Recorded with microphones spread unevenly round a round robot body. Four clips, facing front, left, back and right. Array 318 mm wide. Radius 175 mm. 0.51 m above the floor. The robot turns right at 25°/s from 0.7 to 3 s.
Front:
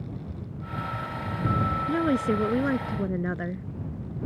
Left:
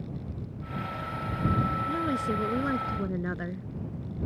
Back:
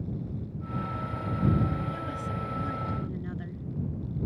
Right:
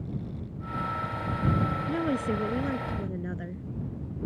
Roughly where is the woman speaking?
Ahead.